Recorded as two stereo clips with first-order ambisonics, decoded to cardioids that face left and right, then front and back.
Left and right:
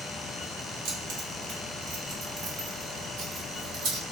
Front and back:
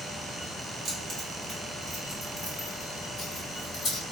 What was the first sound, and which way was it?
Keys jangling, 115° right.